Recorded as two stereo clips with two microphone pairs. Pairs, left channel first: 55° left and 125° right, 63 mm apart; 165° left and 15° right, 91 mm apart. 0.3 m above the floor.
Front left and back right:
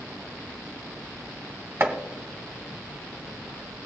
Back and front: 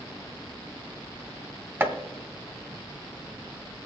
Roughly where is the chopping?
Right.